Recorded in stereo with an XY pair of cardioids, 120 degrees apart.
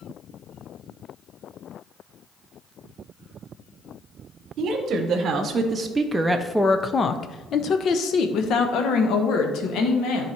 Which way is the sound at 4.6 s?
60° right.